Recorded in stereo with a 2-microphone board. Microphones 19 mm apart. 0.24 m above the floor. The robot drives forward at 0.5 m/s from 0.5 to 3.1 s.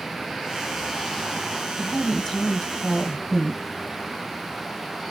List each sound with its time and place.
1.8 s a woman speaking: 15° left (ahead or behind), 1.1 m